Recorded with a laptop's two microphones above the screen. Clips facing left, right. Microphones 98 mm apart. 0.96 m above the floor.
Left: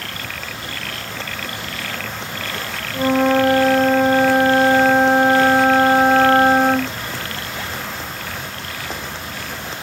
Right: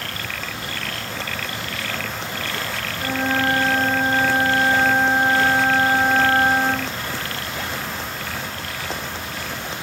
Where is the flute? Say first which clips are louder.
Left 8 dB; 80° left, 0.7 m.